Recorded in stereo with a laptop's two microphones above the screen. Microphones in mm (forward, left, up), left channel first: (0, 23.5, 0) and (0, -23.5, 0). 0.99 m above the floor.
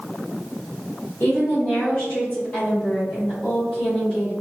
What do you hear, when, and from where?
1.2 s a woman speaking: 35° left (ahead or behind), 2.0 m; by 4.3 s centre (ahead or behind), 3.5 m